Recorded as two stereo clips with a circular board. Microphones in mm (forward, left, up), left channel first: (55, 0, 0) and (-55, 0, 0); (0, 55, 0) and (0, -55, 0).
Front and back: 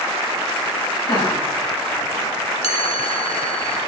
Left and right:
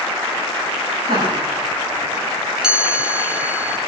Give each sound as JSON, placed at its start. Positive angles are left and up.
{"t": 1.1, "sound": "laughter", "azimuth_deg": -45, "distance_m": 5.0}
{"t": 2.6, "sound": "a chime", "azimuth_deg": -10, "distance_m": 0.8}